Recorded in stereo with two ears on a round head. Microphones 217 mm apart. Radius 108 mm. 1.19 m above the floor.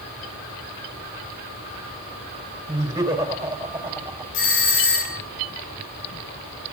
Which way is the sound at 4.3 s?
55° left (ahead or behind).